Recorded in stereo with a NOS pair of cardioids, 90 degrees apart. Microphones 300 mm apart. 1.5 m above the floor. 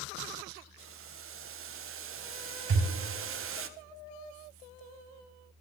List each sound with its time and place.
0.8 s boiling: 45° right, 0.9 m
2.7 s a thud: 50° right, 5 m